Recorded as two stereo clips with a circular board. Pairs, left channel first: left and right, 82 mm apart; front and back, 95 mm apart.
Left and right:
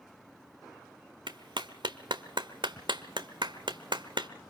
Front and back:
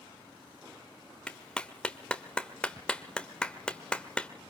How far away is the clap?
About 1.2 m.